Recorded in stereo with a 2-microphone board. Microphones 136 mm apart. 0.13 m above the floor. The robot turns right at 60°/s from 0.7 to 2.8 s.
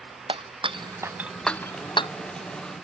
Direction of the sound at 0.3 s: 40° right (ahead or behind).